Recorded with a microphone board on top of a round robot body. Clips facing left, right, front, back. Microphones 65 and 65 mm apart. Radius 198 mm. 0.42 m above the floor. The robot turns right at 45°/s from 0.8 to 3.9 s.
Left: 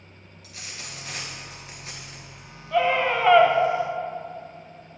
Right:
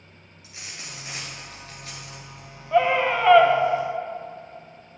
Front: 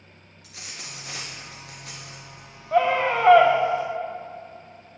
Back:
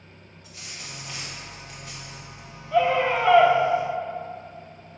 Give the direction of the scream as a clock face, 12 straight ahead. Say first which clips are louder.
Right 2 dB, even; 1 o'clock.